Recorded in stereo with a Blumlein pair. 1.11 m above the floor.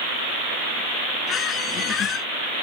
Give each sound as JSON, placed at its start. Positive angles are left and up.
{"t": 1.3, "sound": "a squeak", "azimuth_deg": 30}